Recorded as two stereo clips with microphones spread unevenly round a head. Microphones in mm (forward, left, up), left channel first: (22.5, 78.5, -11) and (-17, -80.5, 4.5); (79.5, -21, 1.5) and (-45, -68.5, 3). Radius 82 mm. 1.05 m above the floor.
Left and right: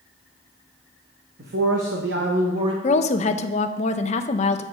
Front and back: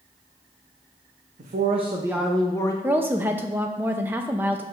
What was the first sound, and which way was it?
A man speaking, 140° right.